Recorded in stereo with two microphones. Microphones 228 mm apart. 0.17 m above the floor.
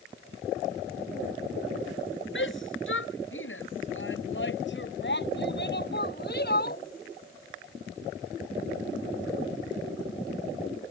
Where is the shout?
55° left (ahead or behind); by 6.8 s 45° left (ahead or behind).